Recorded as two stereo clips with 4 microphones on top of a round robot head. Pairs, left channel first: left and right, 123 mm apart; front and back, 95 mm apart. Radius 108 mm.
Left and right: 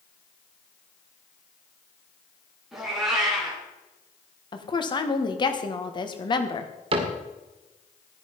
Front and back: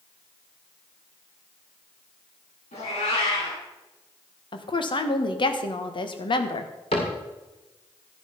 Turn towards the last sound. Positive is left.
turn(degrees=-55)